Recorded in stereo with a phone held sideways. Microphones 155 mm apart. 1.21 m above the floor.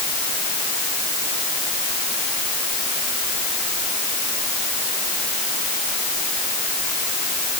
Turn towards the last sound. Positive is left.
No sound to turn to.